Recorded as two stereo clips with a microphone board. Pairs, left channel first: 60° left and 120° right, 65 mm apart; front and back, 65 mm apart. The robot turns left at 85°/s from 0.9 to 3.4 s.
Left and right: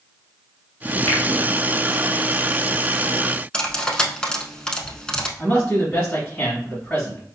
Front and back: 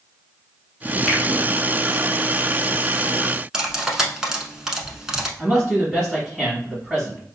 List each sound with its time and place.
1.1 s a finger snap: 100° left, 1.0 m; by 1.2 s 85° left, 1.0 m
3.5 s cutlery clinking: 115° left, 0.7 m
5.4 s a man speaking: 105° left, 1.6 m